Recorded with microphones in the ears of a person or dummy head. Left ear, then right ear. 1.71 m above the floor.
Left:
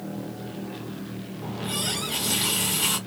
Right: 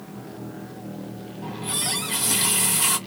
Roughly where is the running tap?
Right.